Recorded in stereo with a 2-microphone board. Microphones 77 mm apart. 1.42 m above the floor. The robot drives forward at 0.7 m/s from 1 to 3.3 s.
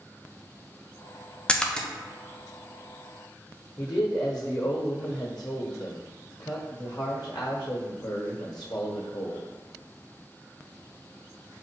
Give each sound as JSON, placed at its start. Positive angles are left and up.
{"t": 1.5, "sound": "a splash", "side_deg": 10, "distance_m": 0.5}
{"t": 3.8, "sound": "a man speaking", "side_deg": 65, "distance_m": 1.0}